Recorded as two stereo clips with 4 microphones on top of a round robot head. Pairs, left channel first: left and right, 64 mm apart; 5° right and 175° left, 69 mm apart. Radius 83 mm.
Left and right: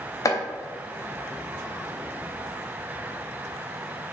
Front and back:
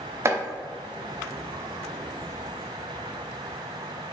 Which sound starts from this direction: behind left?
Chopping, at 0.2 s.